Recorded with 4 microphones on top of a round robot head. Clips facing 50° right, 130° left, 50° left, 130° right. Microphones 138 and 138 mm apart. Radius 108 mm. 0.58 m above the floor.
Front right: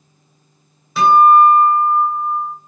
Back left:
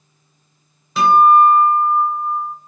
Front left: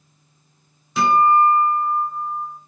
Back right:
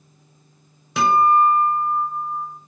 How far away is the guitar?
About 1.6 m.